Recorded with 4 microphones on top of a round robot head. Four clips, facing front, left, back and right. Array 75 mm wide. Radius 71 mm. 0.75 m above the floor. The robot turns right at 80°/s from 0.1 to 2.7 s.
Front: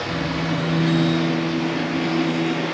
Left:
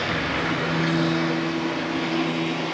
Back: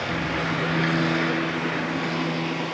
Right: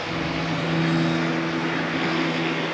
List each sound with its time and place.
0.0 s running water: 105° left, 8.5 m; by 2.8 s 50° right, 8.5 m